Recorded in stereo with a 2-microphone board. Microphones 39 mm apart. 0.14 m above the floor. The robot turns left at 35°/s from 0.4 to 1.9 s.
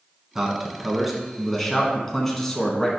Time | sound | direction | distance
0.3 | a man speaking | 10° right (ahead or behind) | 1.1 m